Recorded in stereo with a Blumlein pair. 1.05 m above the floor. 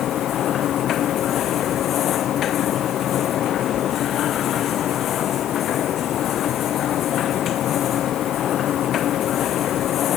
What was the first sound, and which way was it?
A machine running, 30° left.